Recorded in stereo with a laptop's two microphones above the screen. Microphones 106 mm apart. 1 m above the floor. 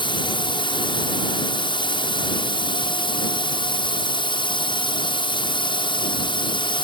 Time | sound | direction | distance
0.0 | a drone | 50° left (ahead or behind) | ?